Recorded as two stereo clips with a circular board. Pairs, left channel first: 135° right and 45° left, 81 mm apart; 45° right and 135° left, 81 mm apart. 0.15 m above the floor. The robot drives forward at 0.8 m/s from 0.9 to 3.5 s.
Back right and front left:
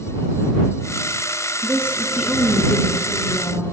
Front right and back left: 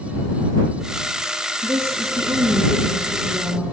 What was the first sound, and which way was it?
A woman speaking, 100° left.